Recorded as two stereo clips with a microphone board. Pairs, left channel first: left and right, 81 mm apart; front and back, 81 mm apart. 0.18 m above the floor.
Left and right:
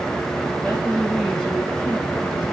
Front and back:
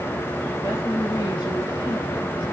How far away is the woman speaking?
About 4 m.